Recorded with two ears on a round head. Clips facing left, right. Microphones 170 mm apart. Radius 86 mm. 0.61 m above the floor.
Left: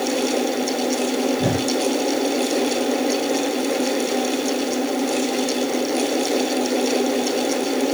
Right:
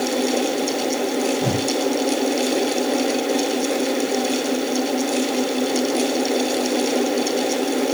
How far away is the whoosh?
About 6.5 m.